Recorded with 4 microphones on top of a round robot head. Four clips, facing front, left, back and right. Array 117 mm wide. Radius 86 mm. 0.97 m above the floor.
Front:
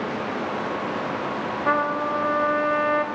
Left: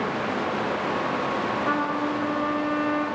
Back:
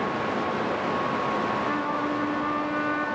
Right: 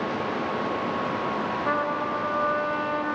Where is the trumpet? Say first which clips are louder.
Right 1 dB, front 4 dB; 5° right, 3 m.